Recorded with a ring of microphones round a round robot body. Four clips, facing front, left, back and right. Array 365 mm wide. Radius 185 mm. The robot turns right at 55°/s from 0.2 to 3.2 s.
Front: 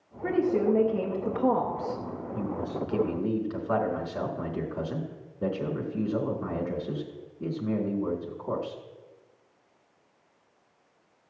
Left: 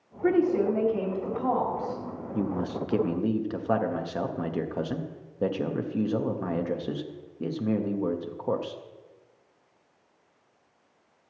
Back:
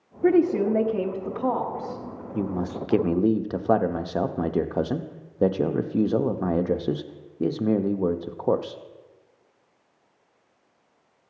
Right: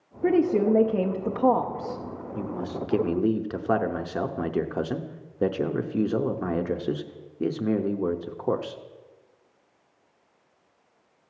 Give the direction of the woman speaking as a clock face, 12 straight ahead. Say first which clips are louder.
Right 2 dB, back 5 dB; 4 o'clock.